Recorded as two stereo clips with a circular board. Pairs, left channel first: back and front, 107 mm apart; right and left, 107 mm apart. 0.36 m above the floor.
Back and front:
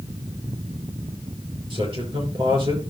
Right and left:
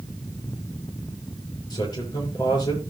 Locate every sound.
1.7 s a man speaking: 40° right, 7 m